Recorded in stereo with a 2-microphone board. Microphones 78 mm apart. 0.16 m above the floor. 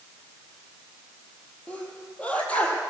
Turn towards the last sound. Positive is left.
turn(degrees=15)  # may be behind; listen again after turning